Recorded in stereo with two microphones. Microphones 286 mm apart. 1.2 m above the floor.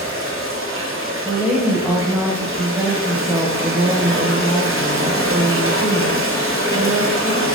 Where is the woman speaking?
5° right (ahead or behind), 0.7 m.